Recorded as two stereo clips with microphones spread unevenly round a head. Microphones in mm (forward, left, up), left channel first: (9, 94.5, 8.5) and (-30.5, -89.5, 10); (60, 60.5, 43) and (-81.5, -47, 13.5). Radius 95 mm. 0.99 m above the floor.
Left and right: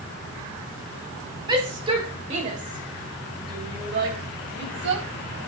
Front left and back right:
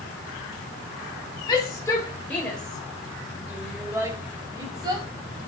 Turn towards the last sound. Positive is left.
turn(degrees=-75)